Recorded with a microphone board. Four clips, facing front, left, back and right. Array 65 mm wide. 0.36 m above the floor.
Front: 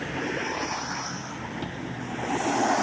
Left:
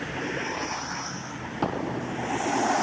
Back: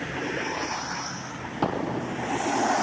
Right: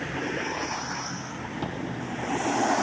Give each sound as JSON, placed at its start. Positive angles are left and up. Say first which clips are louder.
{"t": 1.6, "sound": "an explosion", "louder": "left 6 dB, back 7 dB", "azimuth_deg": 150}